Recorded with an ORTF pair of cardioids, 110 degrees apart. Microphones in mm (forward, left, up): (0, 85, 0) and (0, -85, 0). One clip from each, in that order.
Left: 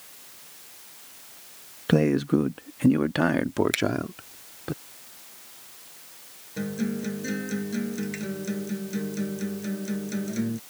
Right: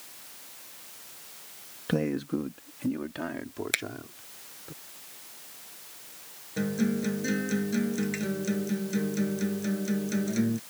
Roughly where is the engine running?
I don't hear an engine running.